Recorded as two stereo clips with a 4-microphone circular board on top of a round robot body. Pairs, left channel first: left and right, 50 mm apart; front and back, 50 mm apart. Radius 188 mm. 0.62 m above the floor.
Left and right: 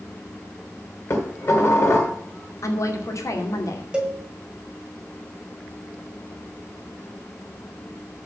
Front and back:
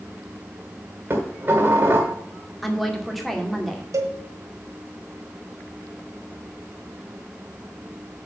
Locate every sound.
1.1 s dishes clattering: 130° left, 2.5 m
2.6 s a woman speaking: 90° left, 2 m
3.9 s a cowbell: 165° right, 0.9 m